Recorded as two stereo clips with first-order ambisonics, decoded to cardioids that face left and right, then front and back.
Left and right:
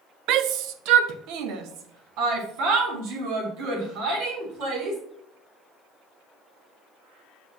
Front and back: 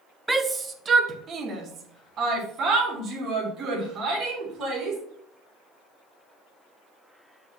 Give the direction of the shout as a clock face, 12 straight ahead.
3 o'clock.